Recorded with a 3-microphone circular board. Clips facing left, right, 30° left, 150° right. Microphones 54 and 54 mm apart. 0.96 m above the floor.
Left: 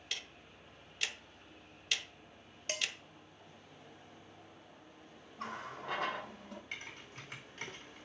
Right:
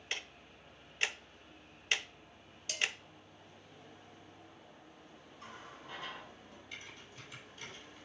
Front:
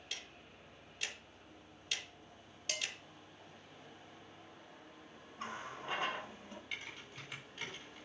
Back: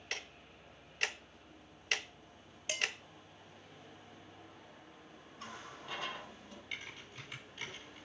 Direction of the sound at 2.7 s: 130° left.